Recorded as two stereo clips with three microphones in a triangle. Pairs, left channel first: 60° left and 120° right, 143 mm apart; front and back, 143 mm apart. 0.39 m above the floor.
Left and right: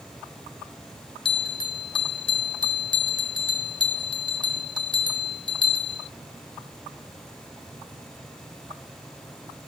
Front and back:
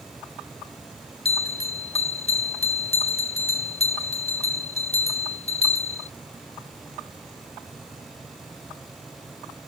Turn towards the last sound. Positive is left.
turn(degrees=20)